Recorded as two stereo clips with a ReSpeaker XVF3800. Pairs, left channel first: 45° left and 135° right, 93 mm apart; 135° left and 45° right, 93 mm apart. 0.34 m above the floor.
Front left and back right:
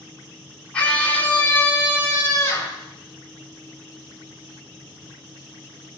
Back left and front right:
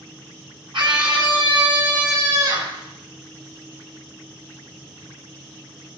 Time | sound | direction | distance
0.7 | a scream | 30° right | 3 m